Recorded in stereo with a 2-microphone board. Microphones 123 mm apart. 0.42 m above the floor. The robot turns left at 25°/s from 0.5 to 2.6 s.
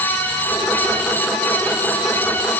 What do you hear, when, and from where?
Only background noise.